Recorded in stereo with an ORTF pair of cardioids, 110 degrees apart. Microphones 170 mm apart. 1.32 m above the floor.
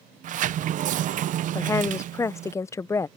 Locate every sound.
0.2 s a sliding door: 55° right
1.6 s a woman speaking: 15° left